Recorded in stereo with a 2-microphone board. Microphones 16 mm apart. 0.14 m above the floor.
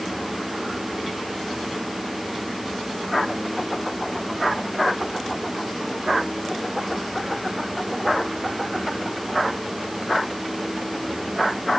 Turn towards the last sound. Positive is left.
No sound to turn to.